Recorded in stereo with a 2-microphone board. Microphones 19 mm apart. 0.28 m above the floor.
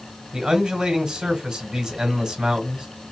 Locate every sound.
0.3 s a man speaking: 45° right (ahead or behind), 1.8 m